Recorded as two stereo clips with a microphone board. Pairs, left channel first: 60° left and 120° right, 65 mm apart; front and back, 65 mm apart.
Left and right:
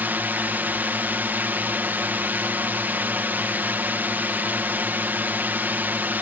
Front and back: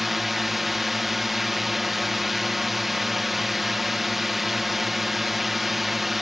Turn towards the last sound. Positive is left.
turn(degrees=-95)